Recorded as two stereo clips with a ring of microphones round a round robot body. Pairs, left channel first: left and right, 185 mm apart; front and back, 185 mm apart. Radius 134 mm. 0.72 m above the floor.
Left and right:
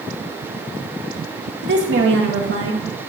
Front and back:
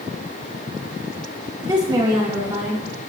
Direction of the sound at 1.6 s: 110° right.